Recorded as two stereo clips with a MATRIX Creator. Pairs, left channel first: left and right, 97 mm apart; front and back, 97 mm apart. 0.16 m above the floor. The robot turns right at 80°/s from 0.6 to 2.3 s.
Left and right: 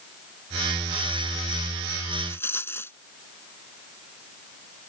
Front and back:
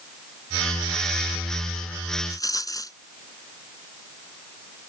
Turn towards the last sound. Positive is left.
turn(degrees=35)